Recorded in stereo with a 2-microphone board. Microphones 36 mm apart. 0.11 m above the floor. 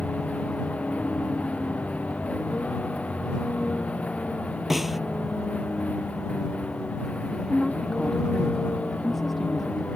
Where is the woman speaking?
5° left (ahead or behind).